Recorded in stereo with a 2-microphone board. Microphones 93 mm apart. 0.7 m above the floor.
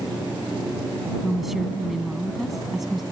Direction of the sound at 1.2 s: 5° right (ahead or behind).